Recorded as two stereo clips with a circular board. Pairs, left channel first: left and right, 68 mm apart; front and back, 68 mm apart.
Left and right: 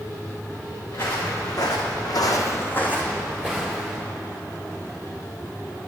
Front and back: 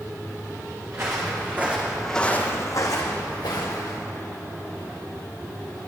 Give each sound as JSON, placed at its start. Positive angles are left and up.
{"t": 0.9, "sound": "footsteps", "azimuth_deg": 135, "distance_m": 2.5}